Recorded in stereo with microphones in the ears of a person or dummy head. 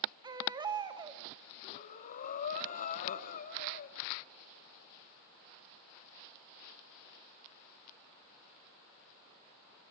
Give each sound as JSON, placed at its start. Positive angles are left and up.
{"t": 0.2, "sound": "a baby crying", "side_deg": -20, "distance_m": 2.0}
{"t": 1.6, "sound": "breathing", "side_deg": 40, "distance_m": 1.2}